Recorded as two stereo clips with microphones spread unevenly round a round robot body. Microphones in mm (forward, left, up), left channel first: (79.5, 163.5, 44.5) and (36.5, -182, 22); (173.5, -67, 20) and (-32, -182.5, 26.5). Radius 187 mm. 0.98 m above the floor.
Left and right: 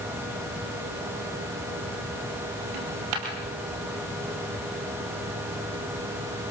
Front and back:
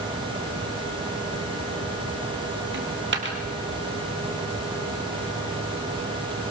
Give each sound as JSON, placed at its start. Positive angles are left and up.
{"t": 2.7, "sound": "a dropped coin", "azimuth_deg": -115, "distance_m": 3.5}